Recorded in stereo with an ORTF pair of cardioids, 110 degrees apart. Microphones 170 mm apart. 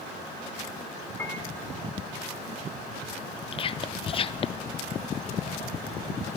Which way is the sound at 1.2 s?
15° left.